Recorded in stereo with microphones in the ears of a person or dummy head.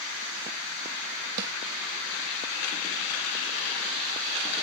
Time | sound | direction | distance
1.4 | a snare drum | 65° right (ahead or behind) | ?